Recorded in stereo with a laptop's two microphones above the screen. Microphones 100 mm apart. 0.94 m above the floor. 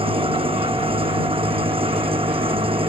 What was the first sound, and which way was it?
An engine running, 65° right (ahead or behind).